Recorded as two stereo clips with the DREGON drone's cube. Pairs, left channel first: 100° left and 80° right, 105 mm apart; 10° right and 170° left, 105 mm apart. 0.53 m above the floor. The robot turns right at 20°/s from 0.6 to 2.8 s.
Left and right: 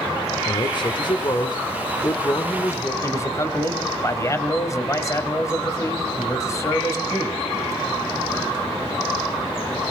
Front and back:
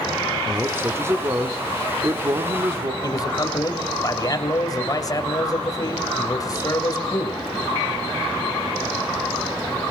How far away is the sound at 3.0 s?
About 2 m.